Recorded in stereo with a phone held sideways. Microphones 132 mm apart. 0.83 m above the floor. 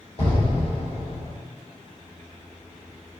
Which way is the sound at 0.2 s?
45° left (ahead or behind).